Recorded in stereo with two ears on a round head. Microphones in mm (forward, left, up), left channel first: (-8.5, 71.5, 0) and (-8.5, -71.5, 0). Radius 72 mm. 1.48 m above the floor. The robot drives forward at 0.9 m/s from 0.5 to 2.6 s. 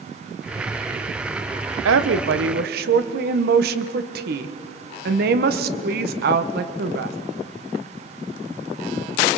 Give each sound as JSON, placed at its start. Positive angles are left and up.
{"t": 1.9, "sound": "a woman speaking", "side_deg": -80, "distance_m": 1.0}